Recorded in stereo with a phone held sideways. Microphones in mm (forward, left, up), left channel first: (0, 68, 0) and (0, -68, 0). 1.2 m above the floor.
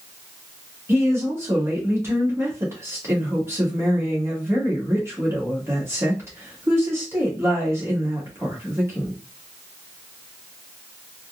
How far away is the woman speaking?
About 1.5 m.